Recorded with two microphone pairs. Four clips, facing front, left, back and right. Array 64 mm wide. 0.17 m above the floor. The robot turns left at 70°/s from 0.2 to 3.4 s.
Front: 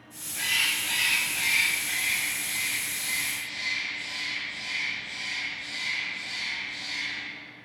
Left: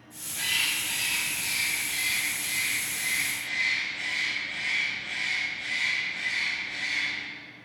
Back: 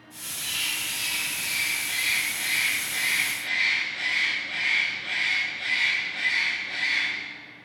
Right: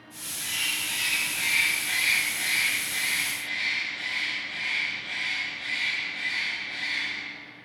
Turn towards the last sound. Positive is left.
turn(degrees=-175)